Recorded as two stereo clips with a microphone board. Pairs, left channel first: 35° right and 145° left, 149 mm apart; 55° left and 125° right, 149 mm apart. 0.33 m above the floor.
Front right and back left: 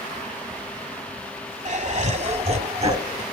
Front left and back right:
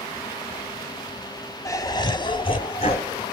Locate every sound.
1.6 s laughter: 120° left, 1.4 m; by 3.2 s 95° left, 2 m